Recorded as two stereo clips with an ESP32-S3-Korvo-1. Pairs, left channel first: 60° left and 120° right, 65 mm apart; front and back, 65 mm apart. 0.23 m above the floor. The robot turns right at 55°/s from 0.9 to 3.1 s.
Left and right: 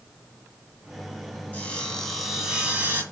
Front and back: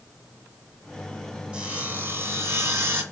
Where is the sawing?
115° left, 1.8 m; by 3.0 s 160° right, 1.8 m.